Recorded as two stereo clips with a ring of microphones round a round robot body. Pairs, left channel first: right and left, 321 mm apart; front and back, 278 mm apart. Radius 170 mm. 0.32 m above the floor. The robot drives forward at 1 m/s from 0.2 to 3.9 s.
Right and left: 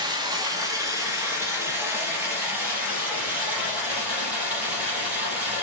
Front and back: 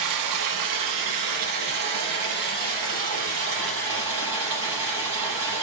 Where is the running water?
170° left, 1.9 m; by 5.6 s 175° left, 5.5 m.